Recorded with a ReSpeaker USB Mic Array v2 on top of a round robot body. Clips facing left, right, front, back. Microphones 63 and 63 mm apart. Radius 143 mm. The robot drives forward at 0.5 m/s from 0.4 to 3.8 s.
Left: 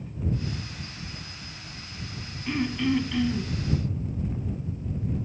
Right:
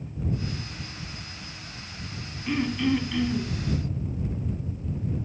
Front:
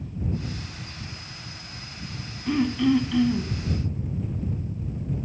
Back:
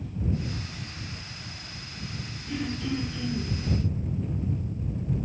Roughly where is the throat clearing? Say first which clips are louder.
Right 1 dB, front 10 dB; ahead.